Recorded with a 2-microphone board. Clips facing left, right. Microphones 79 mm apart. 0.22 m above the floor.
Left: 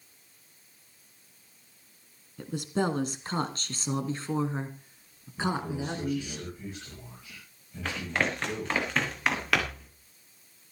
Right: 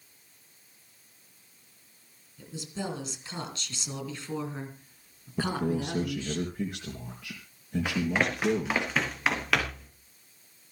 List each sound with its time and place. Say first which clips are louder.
2.4 s a woman speaking: left 8 dB; 55° left (ahead or behind), 2.5 m; by 6.4 s 10° left (ahead or behind), 3.5 m
5.4 s a man speaking: right 2 dB; 70° right (ahead or behind), 4 m
7.8 s running footsteps: right 1 dB; 10° right (ahead or behind), 6.5 m; by 9.9 s 5° left (ahead or behind), 6 m